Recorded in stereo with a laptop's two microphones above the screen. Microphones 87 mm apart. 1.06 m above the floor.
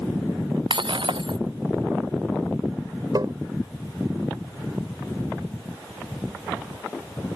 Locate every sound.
0.7 s breaking glass: 70° right (ahead or behind)
3.1 s tapping: 50° right (ahead or behind)